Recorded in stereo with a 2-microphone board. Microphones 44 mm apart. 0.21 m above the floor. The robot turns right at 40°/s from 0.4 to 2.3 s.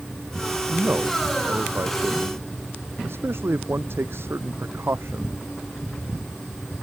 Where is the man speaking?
40° right (ahead or behind); by 5.4 s 70° right (ahead or behind).